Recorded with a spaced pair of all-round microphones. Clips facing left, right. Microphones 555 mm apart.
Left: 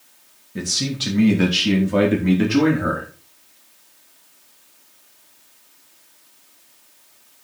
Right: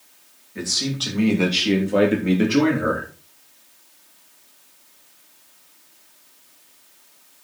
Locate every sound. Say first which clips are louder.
0.6 s a man speaking: left 1 dB; 60° left (ahead or behind), 2.5 m; by 3.1 s 10° left (ahead or behind), 3.5 m